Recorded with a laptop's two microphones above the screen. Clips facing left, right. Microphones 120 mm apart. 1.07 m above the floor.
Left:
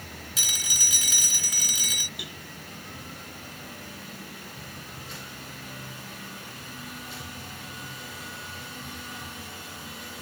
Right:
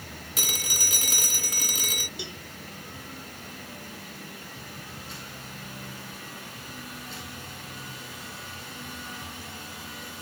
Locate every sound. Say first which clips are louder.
0.4 s a phone ringing: right 7 dB; 50° right (ahead or behind)
2.2 s a cowbell: right 3 dB; 25° right (ahead or behind)